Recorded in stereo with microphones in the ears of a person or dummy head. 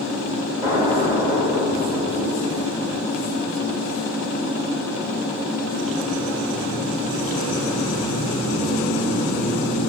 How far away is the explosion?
About 0.9 m.